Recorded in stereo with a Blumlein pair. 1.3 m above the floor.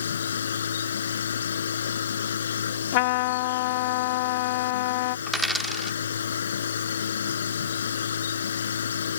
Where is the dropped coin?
Straight ahead.